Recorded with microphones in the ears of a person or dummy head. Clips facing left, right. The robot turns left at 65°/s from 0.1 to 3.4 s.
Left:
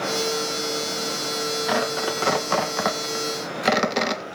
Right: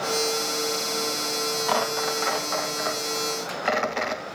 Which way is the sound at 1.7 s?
20° left (ahead or behind).